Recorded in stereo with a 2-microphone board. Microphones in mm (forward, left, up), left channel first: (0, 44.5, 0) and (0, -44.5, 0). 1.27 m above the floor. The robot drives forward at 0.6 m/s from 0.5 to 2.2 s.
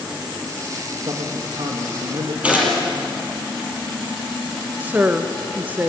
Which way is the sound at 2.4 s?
15° right (ahead or behind).